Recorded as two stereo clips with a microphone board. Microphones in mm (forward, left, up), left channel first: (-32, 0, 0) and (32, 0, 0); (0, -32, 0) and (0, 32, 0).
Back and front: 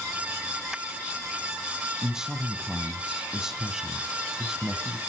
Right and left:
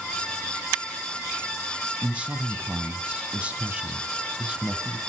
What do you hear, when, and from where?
2.0 s a man speaking: 65° left, 1.3 m